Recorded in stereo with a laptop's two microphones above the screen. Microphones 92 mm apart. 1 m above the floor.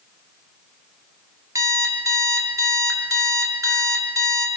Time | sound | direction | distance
1.6 | an alarm clock | 35° right (ahead or behind) | 1.1 m